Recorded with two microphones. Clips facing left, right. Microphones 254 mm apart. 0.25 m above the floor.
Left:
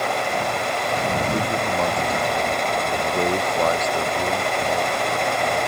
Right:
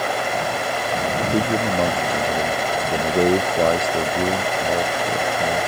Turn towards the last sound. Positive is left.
turn(degrees=-35)  # may be behind; listen again after turning